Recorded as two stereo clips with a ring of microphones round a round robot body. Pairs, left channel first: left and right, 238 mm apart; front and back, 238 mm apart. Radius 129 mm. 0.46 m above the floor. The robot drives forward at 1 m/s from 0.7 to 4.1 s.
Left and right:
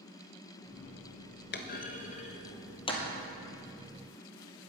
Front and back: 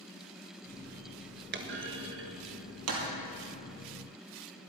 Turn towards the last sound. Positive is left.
turn(degrees=165)